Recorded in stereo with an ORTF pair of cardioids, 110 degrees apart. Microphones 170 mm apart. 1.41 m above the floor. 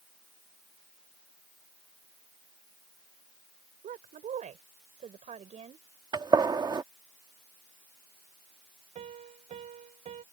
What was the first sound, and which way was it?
A woman speaking, 50° right.